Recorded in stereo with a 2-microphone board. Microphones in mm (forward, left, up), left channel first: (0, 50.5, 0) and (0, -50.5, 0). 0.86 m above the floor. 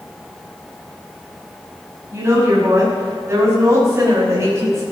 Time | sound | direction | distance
2.1 | a woman speaking | 30° right (ahead or behind) | 6.5 m